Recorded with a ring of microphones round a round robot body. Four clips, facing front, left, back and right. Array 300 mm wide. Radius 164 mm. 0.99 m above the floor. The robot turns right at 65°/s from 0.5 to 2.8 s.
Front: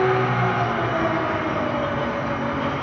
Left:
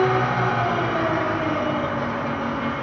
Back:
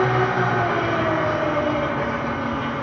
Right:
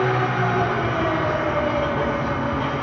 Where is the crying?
No crying in this recording.